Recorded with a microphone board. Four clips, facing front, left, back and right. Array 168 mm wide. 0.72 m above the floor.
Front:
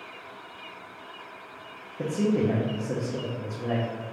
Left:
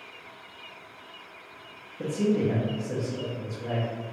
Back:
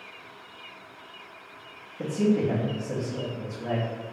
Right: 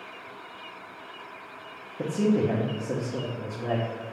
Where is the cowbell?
I don't hear a cowbell.